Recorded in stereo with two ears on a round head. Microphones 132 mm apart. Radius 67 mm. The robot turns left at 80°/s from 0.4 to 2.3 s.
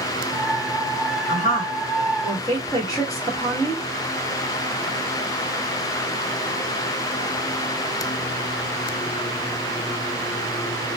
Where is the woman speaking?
105° left, 1.6 m; by 3.9 s 25° left, 1.6 m.